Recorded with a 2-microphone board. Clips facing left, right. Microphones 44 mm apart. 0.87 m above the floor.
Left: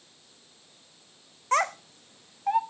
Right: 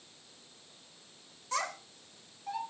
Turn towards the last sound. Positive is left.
turn(degrees=45)  # may be behind; listen again after turning